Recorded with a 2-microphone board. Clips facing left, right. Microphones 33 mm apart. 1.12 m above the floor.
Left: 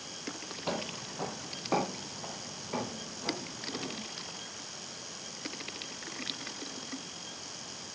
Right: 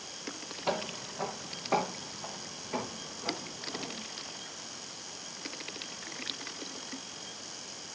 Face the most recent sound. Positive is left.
turn(degrees=5)  # may be behind; listen again after turning